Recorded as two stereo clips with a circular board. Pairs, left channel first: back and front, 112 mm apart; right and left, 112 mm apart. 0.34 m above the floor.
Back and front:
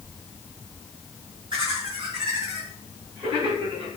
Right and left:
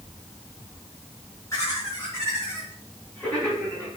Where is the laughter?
35° right, 2.5 m; by 3.9 s 20° right, 4.5 m.